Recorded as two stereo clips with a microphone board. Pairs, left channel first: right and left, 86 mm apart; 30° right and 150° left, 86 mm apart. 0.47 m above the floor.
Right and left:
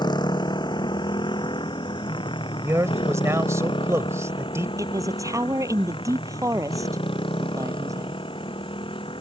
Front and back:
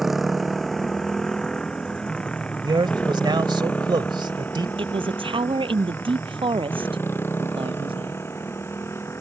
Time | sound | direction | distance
0.0 | a motorcycle | 125° right | ?
2.6 | a man speaking | 140° left | ?
4.8 | a man speaking | 140° left | ?